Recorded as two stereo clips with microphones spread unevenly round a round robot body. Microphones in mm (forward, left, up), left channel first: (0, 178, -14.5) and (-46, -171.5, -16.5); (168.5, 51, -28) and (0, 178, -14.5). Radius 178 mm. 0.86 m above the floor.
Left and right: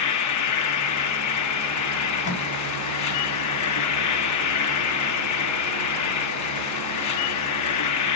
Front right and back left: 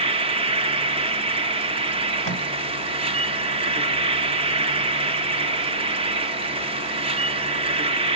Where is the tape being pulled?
130° left, 5.5 m.